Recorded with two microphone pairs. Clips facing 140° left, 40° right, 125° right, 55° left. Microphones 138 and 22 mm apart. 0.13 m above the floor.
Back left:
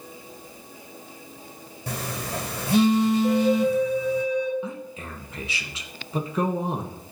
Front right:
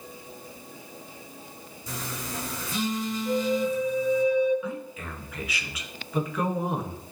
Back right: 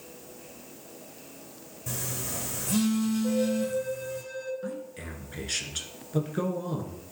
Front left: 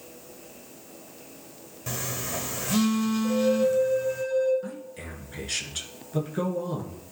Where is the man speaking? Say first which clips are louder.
Even, back right 1 dB; 160° left, 1.2 m.